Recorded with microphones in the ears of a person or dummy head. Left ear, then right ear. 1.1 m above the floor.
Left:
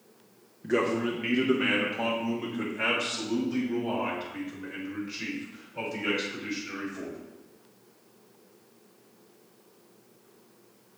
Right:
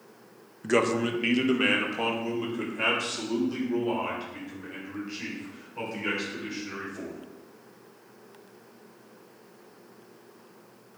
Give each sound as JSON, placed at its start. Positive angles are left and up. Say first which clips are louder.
{"t": 0.6, "sound": "a man speaking", "louder": "right 2 dB", "side_deg": -45, "distance_m": 0.7}